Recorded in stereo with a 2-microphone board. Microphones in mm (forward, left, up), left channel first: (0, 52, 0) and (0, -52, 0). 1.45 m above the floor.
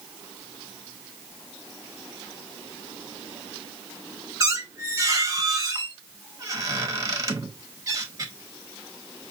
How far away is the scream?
I don't hear a scream.